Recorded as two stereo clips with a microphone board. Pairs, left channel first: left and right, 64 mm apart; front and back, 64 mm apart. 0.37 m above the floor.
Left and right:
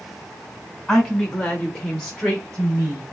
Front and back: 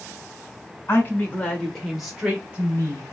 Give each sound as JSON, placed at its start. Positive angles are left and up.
{"t": 0.9, "sound": "a woman speaking", "azimuth_deg": 15, "distance_m": 1.3}